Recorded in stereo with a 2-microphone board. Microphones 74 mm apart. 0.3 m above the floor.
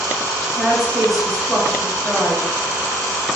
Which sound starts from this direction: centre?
A woman speaking, at 0.5 s.